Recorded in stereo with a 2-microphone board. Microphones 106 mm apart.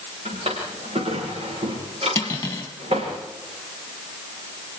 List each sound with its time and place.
0.2 s a drawer: 70° right (ahead or behind), 9 m
2.1 s cutlery clinking: 25° left (ahead or behind), 3 m